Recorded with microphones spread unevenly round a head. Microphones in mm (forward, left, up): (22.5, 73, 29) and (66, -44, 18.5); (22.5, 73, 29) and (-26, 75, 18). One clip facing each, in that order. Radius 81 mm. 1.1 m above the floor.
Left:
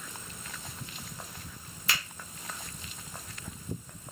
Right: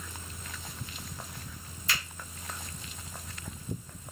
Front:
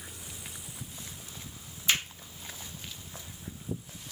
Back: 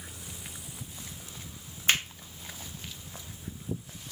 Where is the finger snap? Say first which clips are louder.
Left 1 dB, back 2 dB; 145° left, 1.4 m.